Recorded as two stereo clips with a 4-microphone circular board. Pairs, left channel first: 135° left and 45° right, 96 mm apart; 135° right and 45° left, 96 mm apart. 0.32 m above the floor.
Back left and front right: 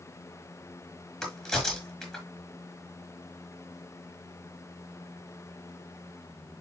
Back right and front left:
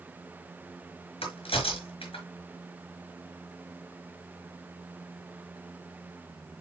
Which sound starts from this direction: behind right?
A crack, at 1.2 s.